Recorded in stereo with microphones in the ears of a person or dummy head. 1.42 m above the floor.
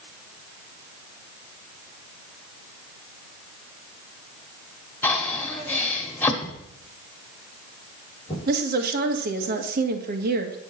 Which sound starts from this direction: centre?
Breathing, at 5.0 s.